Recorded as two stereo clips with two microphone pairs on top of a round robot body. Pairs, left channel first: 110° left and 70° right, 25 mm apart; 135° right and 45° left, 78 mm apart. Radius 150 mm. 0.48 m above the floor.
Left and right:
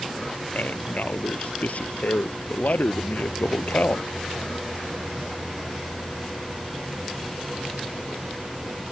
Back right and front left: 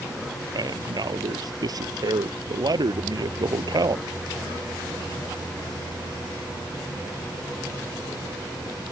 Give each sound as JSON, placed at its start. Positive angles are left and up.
{"t": 0.5, "sound": "a man speaking", "azimuth_deg": 80}